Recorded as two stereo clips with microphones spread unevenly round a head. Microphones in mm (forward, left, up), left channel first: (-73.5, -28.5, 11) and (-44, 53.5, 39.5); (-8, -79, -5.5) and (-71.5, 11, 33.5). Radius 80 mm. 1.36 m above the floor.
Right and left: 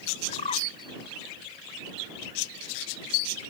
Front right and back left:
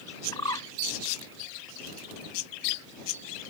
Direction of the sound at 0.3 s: 115° right.